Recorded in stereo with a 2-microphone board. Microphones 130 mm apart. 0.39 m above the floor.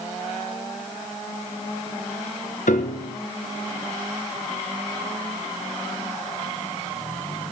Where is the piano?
85° left, 1.5 m.